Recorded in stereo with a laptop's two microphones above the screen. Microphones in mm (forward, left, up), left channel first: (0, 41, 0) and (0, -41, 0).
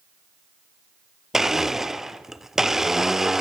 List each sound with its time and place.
1.3 s a blender: 5° right (ahead or behind), 0.7 m